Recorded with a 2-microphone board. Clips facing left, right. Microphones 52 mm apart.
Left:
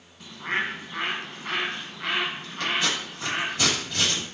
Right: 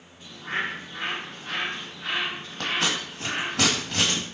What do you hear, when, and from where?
0.2 s a bird: 80° left, 0.9 m
2.6 s scissors: 80° right, 1.1 m